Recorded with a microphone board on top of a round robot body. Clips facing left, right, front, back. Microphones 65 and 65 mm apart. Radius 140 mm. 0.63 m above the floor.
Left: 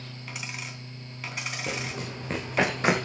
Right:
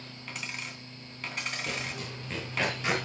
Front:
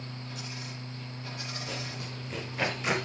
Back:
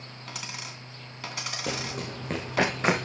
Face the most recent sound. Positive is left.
turn(degrees=130)